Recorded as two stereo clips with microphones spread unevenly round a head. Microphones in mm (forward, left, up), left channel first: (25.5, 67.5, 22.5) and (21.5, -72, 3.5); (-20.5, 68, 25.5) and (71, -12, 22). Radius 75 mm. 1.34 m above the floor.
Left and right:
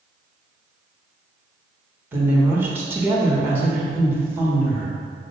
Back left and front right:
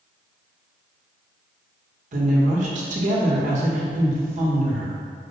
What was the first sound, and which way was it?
A woman speaking, 15° right.